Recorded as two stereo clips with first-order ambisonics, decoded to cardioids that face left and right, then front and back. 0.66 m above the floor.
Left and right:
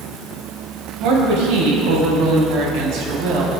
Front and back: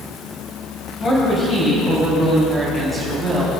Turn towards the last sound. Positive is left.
turn(degrees=-115)